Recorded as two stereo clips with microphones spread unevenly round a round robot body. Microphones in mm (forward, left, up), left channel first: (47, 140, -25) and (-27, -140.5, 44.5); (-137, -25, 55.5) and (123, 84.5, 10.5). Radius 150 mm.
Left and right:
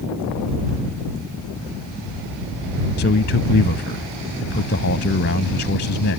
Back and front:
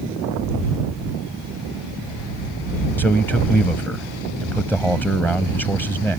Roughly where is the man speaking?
Behind left.